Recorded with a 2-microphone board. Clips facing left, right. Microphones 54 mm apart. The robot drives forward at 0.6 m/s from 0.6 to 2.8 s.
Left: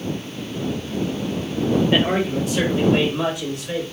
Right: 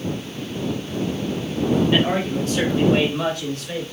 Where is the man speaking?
20° left (ahead or behind), 1.2 m; by 3.8 s 15° left (ahead or behind), 1.5 m.